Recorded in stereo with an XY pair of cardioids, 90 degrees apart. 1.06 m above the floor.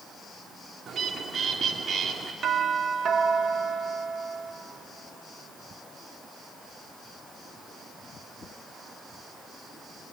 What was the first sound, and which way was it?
A bird, 55° right.